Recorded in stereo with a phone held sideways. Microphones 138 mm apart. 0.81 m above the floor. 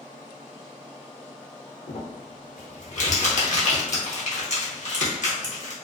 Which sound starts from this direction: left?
Crumpling, at 1.9 s.